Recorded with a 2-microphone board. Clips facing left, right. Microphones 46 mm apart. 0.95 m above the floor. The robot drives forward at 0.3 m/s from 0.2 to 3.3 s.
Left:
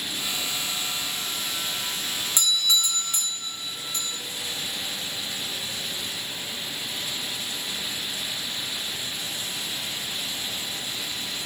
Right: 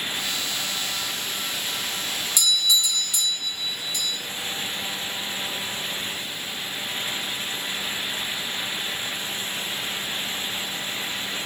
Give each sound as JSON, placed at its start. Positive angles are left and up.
{"t": 2.4, "sound": "a doorbell", "side_deg": 35, "distance_m": 1.7}